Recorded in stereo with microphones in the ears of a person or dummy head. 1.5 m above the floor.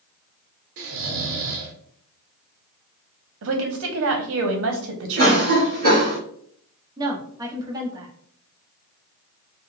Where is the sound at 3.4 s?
65° right (ahead or behind), 0.7 m.